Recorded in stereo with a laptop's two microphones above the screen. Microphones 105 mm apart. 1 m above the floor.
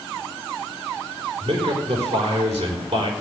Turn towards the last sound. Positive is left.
turn(degrees=-70)  # may be behind; listen again after turning